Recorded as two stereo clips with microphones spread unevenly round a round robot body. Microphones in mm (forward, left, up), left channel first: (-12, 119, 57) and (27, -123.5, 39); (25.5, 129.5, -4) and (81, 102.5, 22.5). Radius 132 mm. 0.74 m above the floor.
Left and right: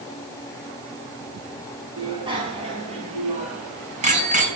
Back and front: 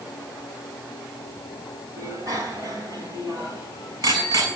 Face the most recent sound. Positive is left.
turn(degrees=-20)